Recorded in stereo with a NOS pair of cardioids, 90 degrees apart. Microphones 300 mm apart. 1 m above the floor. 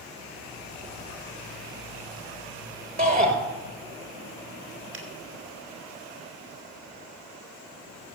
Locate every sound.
3.0 s a shout: 30° right, 4 m
4.9 s a finger snap: 40° right, 3.5 m